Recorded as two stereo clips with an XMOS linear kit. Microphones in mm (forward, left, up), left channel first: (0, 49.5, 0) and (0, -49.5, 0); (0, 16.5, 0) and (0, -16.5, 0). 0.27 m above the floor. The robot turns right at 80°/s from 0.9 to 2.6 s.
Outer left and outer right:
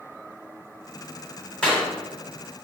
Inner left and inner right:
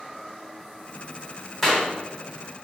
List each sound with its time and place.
1.6 s a clap: 10° left (ahead or behind), 1.8 m; by 1.9 s 25° left (ahead or behind), 1.8 m